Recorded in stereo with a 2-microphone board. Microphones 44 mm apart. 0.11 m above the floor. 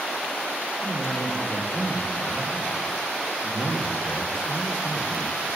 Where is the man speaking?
50° left (ahead or behind), 6.5 m.